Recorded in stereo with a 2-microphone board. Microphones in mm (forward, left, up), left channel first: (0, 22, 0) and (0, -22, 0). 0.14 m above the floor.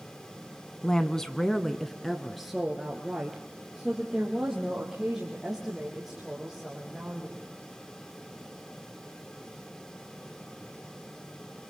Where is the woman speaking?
15° left (ahead or behind), 1.1 m; by 7.4 s 10° right (ahead or behind), 7 m.